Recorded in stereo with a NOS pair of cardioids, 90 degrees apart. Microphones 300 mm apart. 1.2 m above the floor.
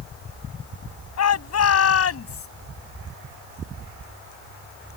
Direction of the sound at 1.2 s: 60° left.